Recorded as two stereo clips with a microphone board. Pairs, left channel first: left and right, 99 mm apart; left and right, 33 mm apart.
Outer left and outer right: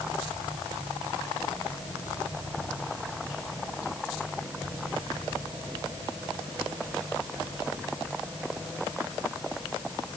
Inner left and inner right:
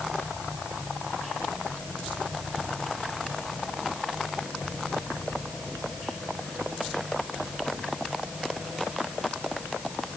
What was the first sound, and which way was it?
Only background noise.